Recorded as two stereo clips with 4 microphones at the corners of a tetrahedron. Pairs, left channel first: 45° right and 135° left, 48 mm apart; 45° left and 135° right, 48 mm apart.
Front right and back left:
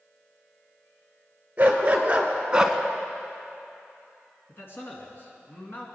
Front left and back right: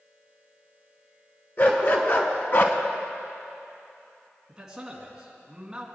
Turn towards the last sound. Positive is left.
turn(degrees=-60)